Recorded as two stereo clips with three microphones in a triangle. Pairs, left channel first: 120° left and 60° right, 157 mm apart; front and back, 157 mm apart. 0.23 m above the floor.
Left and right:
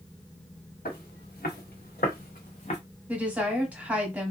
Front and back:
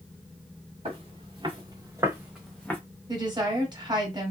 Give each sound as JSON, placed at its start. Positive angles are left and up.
{"t": 0.8, "sound": "footsteps", "azimuth_deg": 130, "distance_m": 1.6}
{"t": 3.1, "sound": "a woman speaking", "azimuth_deg": -135, "distance_m": 1.2}